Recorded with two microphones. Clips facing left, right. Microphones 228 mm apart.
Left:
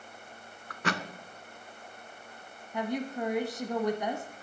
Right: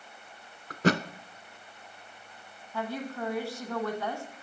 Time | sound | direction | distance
0.7 | a thud | 40° right (ahead or behind) | 0.5 m
2.7 | a woman speaking | 20° left (ahead or behind) | 1.0 m